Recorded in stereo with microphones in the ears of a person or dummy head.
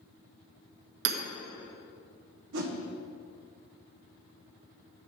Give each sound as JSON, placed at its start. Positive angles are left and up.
{"t": 1.1, "sound": "hammering", "side_deg": -60, "distance_m": 1.4}
{"t": 2.5, "sound": "a whoosh", "side_deg": -70, "distance_m": 1.2}